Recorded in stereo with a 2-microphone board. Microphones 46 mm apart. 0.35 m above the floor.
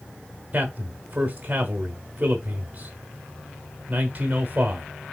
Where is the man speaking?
30° right (ahead or behind), 1.3 m.